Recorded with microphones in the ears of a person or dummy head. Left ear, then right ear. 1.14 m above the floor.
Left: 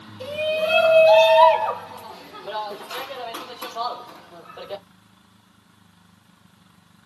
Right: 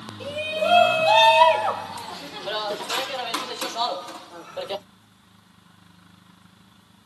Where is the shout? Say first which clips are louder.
Left 2 dB; 5° left (ahead or behind), 1.7 m; by 4.8 s 75° right (ahead or behind), 2.0 m.